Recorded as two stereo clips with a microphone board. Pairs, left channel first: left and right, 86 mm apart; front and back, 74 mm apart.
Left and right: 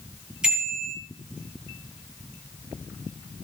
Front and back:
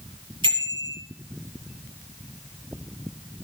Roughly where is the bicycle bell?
Behind.